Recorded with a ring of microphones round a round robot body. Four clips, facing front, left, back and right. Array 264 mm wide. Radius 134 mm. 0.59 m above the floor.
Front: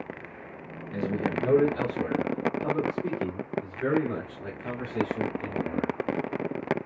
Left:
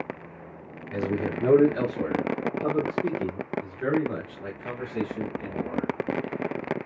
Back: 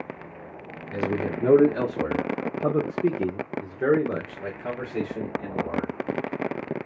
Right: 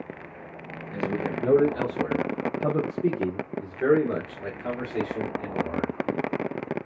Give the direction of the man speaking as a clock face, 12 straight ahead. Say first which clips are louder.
Left 1 dB, back 2 dB; 8 o'clock.